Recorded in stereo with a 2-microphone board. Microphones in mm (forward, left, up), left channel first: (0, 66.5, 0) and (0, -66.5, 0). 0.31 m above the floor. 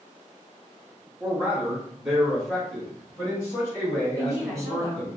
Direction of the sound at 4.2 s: 20° right (ahead or behind).